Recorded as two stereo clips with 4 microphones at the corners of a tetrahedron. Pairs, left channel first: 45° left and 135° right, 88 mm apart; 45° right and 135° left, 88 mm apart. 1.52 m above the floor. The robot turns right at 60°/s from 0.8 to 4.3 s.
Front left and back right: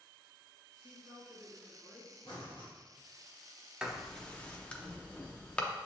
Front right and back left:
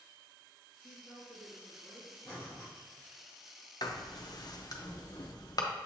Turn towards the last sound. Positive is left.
turn(degrees=-25)